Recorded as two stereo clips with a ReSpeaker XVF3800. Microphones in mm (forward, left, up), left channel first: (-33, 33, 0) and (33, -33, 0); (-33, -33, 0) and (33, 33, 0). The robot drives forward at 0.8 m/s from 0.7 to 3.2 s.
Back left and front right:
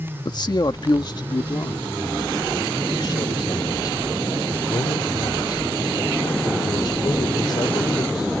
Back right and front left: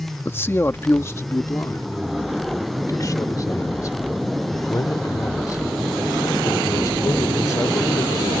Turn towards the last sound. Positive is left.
turn(degrees=175)